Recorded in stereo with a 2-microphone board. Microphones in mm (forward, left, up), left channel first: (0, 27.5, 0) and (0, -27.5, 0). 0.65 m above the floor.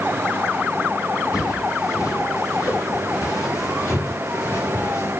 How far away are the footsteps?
About 6.5 m.